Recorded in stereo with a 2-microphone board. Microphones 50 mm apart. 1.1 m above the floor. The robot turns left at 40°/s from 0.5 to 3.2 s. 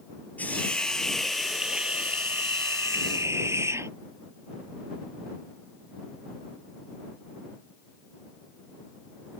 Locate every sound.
0.4 s a hiss: 30° left; by 3.9 s 75° right